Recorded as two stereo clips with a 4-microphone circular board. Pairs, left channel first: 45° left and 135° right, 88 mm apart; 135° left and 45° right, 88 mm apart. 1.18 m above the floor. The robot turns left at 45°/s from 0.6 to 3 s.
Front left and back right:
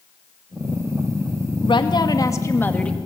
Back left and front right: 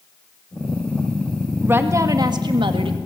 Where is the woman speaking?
25° left, 2.0 m; by 3.0 s 35° right, 2.0 m.